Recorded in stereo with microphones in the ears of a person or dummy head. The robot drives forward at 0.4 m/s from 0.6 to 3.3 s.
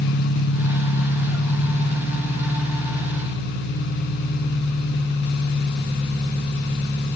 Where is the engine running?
75° left (ahead or behind), 0.9 m; by 7.2 s 35° left (ahead or behind), 1.5 m.